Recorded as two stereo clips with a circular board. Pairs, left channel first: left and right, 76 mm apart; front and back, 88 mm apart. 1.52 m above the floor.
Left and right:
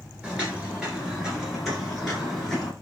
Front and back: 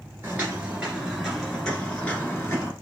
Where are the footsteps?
150° right, 1.6 m; by 2.7 s 5° left, 1.6 m.